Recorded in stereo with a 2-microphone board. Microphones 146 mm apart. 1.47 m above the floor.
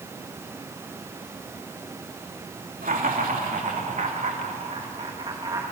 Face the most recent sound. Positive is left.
turn(degrees=-25)  # may be behind; listen again after turning